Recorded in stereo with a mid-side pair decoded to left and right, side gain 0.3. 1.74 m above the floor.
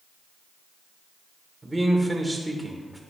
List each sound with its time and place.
1.6 s a man speaking: 25° right, 1.9 m; by 3.0 s straight ahead, 1.9 m